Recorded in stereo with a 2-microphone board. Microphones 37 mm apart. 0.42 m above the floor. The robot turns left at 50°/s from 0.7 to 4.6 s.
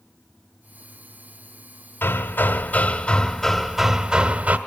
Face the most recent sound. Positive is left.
turn(degrees=-45)